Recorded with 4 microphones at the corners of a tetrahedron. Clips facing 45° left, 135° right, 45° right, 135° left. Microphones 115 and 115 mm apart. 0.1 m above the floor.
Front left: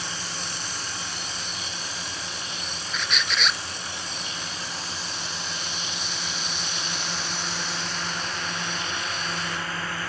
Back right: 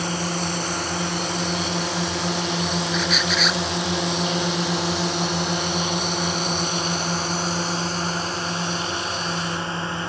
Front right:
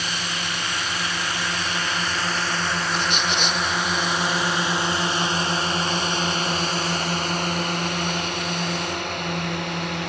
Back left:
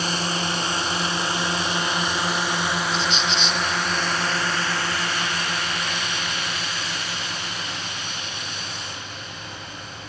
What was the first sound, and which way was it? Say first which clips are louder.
A drone: back right 10 dB, back left 4 dB; 170° right.